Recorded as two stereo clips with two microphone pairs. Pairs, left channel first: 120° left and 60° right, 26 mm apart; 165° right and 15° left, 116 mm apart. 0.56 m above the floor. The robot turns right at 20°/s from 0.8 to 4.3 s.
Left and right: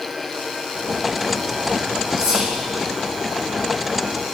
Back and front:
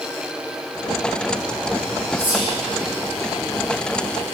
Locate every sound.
2.2 s whispering: 5° right, 1.8 m; by 2.5 s 5° left, 1.8 m